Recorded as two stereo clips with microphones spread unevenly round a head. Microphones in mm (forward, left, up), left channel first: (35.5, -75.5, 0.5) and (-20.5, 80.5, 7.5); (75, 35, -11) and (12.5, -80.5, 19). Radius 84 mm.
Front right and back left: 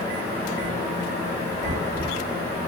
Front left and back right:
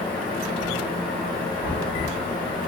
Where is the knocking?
Straight behind, 1.4 m.